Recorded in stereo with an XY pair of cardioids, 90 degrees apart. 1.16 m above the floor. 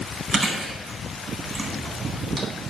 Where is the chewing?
20° right, 0.9 m.